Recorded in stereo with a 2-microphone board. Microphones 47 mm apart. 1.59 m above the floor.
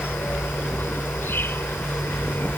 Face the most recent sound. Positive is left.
turn(degrees=60)  # may be behind; listen again after turning